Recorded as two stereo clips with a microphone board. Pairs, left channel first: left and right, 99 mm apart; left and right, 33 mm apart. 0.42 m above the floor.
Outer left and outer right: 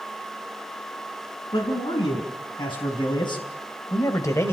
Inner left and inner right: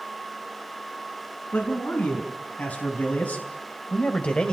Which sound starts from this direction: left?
A man speaking, at 1.5 s.